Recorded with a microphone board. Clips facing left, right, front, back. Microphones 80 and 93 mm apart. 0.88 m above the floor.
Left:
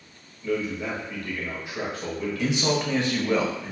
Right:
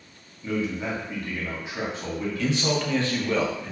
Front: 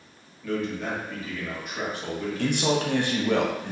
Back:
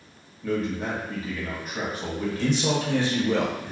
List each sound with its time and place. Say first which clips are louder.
0.4 s a man speaking: even, back 2 dB; 150° right, 0.9 m
2.4 s a man speaking: left 1 dB, front 1 dB; 20° left, 0.6 m